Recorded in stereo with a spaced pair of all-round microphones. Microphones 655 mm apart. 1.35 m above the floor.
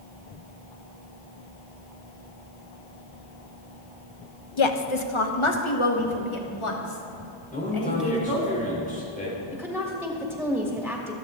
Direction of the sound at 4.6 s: 45° left (ahead or behind).